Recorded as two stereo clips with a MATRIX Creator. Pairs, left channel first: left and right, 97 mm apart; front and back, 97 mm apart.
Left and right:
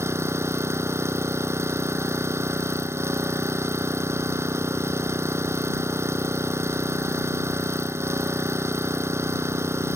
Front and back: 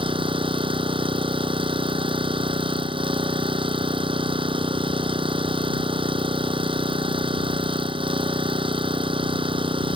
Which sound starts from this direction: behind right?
An engine running, at 0.0 s.